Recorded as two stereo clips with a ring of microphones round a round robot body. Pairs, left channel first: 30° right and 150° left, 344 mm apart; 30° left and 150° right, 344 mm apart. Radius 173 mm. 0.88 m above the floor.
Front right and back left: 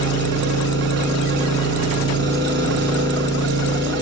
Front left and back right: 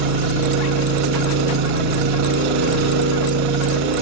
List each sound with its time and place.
0.0 s an engine running: 150° right, 5.5 m